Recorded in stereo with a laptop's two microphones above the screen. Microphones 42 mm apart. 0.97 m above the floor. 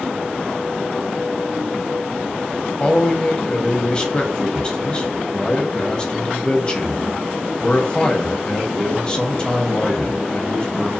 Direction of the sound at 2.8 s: 25° left (ahead or behind).